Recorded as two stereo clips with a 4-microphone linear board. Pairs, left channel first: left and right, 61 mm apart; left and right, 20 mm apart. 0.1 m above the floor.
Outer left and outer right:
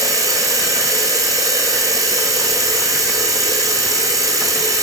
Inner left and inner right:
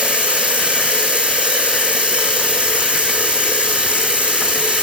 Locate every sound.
0.0 s running water: 70° right (ahead or behind), 2.5 m